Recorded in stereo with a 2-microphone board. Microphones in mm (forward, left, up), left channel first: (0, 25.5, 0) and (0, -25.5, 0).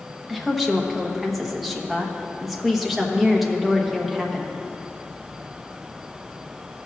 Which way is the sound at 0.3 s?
5° right (ahead or behind).